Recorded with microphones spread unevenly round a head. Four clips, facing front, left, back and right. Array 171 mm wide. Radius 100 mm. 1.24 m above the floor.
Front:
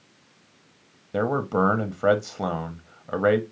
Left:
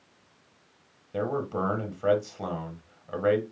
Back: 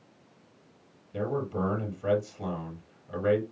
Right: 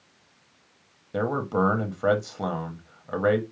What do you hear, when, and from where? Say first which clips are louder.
1.1 s a man speaking: right 4 dB, front 7 dB; 20° right, 0.8 m